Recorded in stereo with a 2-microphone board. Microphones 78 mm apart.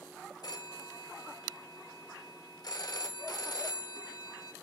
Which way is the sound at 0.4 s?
55° left (ahead or behind).